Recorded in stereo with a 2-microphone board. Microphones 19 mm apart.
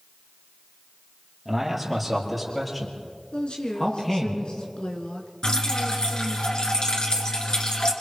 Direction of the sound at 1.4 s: 10° right (ahead or behind).